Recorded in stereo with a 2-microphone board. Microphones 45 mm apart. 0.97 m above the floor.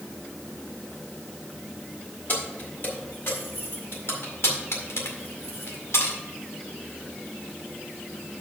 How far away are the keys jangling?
About 2.5 m.